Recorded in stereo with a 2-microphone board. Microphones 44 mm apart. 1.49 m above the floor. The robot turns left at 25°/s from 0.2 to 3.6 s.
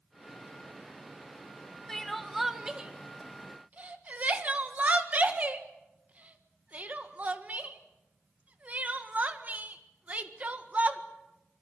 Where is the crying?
5° left (ahead or behind), 1.7 m; by 11.0 s 35° right (ahead or behind), 1.7 m.